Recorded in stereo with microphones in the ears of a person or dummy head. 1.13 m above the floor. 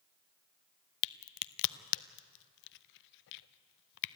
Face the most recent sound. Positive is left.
turn(degrees=65)  # may be behind; listen again after turning